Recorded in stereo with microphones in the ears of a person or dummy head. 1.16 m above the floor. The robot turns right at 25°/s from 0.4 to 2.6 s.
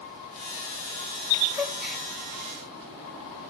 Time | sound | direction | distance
1.5 | a gasp | 10° right (ahead or behind) | 1.3 m